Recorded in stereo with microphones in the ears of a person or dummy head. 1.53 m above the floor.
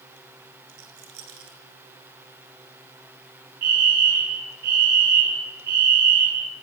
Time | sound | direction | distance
0.7 | a rattle | 80° right | 6.5 m
3.6 | a fire alarm | 50° right (ahead or behind) | 5.5 m